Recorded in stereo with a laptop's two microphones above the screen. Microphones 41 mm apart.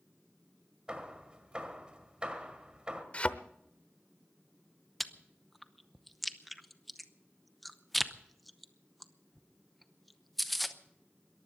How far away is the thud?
About 0.9 m.